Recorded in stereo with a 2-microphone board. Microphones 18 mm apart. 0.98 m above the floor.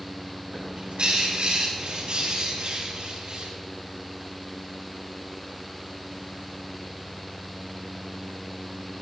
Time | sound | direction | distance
0.5 | a bird | 75° right (ahead or behind) | 6 m